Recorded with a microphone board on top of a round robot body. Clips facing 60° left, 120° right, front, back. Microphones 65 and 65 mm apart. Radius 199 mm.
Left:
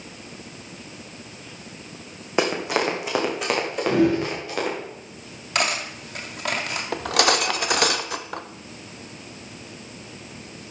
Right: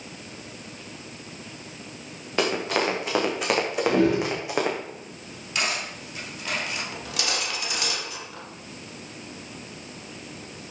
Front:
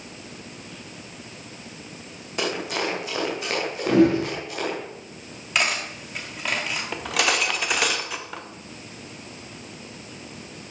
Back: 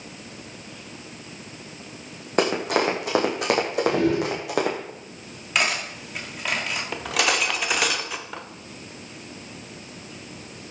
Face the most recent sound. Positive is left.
turn(degrees=90)